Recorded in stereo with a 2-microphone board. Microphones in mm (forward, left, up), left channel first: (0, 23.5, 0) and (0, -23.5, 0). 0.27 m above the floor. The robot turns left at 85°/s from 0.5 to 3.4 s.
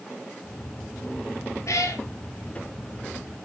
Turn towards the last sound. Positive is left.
turn(degrees=-35)